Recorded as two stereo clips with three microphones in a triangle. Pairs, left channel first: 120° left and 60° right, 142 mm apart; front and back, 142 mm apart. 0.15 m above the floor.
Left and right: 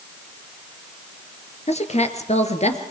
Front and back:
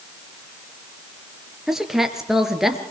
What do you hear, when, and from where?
1.7 s a woman speaking: 95° left, 3 m